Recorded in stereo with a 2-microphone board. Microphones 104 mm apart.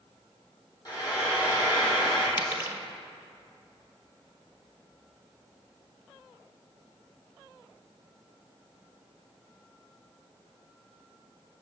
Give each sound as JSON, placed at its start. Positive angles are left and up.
{"t": 0.8, "sound": "frying", "side_deg": 40, "distance_m": 4.0}
{"t": 2.4, "sound": "a dropped coin", "side_deg": -25, "distance_m": 1.6}